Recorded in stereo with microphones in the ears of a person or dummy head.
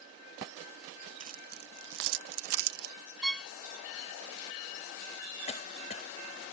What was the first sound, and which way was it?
Keys jangling, 35° right (ahead or behind).